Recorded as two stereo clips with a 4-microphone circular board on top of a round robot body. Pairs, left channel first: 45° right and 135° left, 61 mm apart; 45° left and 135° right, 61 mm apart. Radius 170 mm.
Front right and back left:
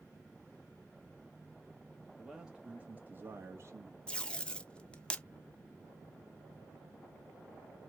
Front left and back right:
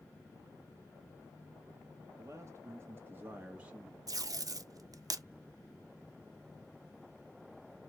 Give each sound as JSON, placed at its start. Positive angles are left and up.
{"t": 2.2, "sound": "a man speaking", "azimuth_deg": -135, "distance_m": 1.0}
{"t": 4.1, "sound": "tape being pulled", "azimuth_deg": -120, "distance_m": 0.6}